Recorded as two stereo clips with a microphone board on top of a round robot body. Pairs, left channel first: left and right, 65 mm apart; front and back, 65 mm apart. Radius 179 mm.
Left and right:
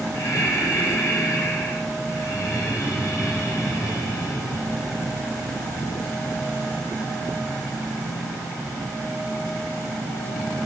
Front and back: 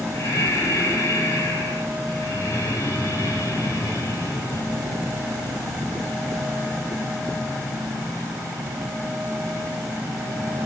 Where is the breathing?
55° left, 8 m.